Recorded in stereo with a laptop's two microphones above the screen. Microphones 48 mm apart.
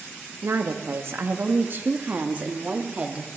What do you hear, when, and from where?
0.4 s a woman speaking: 70° right (ahead or behind), 1.3 m; by 3.3 s 25° right (ahead or behind), 2 m